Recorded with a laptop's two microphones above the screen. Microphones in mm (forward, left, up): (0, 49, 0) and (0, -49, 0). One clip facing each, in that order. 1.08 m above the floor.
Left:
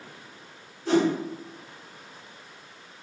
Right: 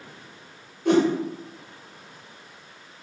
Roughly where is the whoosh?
Right.